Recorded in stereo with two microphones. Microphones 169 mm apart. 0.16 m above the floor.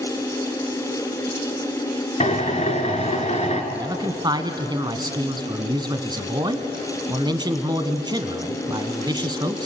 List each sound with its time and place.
2.2 s a drill: 35° left (ahead or behind), 2.5 m
3.7 s a man speaking: 25° right (ahead or behind), 1.5 m